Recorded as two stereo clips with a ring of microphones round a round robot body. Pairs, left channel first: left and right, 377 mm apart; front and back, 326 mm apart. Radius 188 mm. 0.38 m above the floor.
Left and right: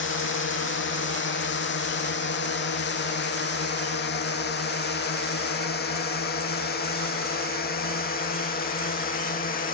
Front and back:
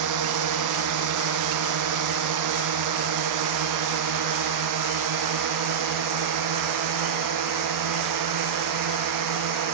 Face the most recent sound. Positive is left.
turn(degrees=160)